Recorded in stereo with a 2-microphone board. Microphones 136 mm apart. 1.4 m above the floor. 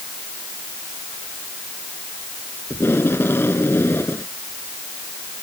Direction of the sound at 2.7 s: 15° left (ahead or behind).